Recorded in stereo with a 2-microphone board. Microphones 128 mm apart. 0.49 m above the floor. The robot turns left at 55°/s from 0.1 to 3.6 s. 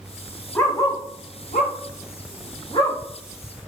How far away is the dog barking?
About 0.6 m.